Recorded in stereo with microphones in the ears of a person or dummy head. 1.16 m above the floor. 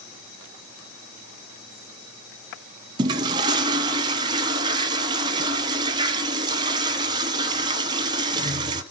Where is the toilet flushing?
20° right (ahead or behind), 0.7 m.